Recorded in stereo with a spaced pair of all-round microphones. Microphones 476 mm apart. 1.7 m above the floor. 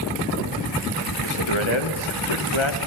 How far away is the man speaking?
About 2.5 m.